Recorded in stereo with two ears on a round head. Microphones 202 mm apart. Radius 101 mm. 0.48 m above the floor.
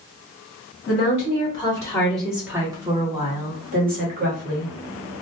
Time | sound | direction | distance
0.9 | a woman speaking | 35° left (ahead or behind) | 1.2 m